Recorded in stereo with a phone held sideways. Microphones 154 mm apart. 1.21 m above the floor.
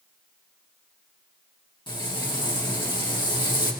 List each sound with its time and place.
1.9 s frying: 30° left (ahead or behind), 1.9 m